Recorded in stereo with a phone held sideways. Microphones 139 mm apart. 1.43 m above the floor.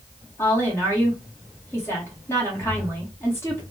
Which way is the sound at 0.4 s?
20° left (ahead or behind).